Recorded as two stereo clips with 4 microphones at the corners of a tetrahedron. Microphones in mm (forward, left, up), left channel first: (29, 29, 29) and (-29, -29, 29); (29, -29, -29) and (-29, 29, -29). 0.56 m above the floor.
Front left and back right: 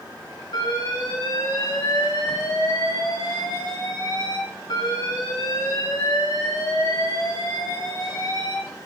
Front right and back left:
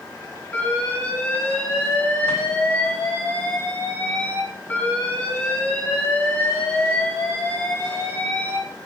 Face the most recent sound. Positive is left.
turn(degrees=25)